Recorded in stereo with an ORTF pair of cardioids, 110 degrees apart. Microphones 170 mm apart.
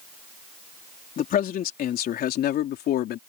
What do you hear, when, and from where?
1.2 s a man speaking: 55° left; by 3.2 s 70° left